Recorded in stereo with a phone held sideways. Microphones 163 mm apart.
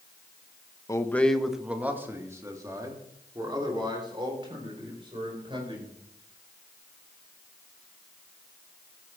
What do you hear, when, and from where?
0.9 s a man speaking: 20° left (ahead or behind), 1.0 m; by 5.9 s 35° right (ahead or behind), 5.5 m